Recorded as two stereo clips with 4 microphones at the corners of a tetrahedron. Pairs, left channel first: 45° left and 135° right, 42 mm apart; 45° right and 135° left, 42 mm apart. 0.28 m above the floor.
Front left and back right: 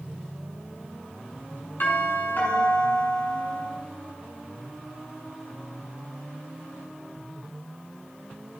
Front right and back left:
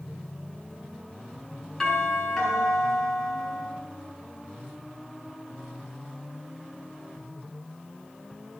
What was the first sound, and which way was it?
A doorbell, 35° left.